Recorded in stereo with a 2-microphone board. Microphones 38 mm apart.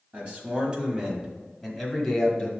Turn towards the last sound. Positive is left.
turn(degrees=10)  # may be behind; listen again after turning